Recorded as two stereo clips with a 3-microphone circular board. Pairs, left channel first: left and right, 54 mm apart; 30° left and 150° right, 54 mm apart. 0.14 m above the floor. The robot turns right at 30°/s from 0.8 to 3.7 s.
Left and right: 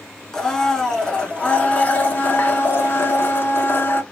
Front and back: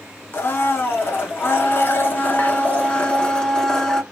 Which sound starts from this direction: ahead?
A blender, at 0.3 s.